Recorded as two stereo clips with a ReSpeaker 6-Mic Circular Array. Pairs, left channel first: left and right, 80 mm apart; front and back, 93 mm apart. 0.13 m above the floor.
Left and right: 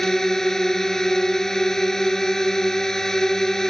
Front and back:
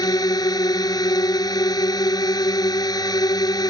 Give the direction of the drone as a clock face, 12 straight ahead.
12 o'clock.